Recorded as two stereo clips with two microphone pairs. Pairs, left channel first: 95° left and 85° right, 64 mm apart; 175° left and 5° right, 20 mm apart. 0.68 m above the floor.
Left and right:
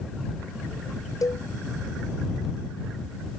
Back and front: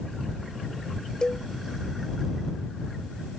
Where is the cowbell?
125° left.